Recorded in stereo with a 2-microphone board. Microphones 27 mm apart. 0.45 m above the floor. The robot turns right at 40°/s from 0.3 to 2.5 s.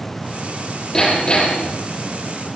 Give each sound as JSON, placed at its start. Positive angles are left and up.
{"t": 0.9, "sound": "hammering", "azimuth_deg": 15, "distance_m": 9.0}